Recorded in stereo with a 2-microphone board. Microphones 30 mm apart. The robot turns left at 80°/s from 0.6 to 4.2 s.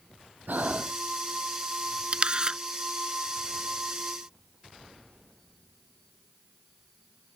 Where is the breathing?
75° right (ahead or behind); by 1.0 s 50° right (ahead or behind).